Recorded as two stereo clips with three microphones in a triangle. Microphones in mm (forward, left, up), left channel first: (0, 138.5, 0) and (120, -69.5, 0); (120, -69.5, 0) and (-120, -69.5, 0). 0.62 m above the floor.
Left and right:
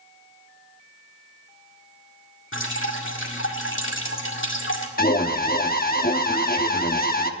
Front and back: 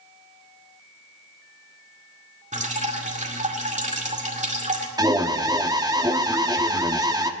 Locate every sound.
2.5 s dripping: 130° left, 2.0 m
5.0 s an alarm: 120° left, 0.9 m